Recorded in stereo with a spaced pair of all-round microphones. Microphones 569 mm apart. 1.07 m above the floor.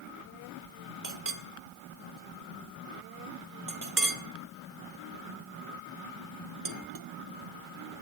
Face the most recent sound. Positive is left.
turn(degrees=-35)  # may be behind; listen again after turning